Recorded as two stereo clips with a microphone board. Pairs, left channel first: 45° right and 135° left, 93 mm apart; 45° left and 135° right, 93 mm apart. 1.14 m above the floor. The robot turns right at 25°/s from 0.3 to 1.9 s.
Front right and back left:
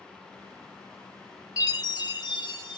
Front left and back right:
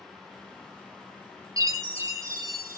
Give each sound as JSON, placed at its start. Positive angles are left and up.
{"t": 1.6, "sound": "a chime", "azimuth_deg": -90, "distance_m": 1.0}